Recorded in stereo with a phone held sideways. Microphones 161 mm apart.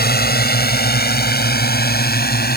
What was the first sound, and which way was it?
A drone, 75° left (ahead or behind).